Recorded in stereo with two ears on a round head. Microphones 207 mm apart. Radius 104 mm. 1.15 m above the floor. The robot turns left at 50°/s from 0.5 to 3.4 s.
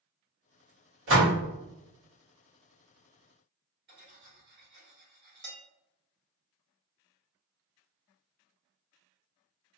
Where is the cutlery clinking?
50° right (ahead or behind), 1.5 m.